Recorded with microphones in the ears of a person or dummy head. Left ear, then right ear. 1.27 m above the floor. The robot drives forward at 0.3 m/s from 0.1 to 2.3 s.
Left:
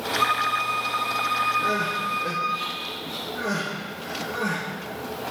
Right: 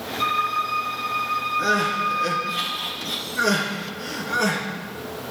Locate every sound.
0.2 s a violin: 20° left (ahead or behind), 6.5 m; by 2.6 s 25° left (ahead or behind), 5.5 m
1.6 s crying: 75° right (ahead or behind), 4.5 m